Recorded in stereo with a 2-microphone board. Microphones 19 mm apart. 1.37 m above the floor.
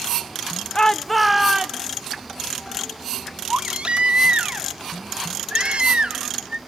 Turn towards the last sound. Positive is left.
turn(degrees=-65)  # may be behind; listen again after turning